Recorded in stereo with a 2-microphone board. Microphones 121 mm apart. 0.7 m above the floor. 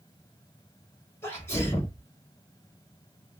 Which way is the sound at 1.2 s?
20° left (ahead or behind).